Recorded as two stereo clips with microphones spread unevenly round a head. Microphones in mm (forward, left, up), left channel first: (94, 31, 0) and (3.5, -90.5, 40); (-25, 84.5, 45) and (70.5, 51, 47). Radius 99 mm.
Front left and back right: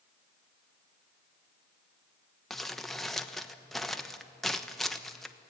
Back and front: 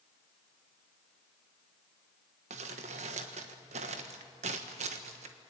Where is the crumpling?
40° right, 1.3 m.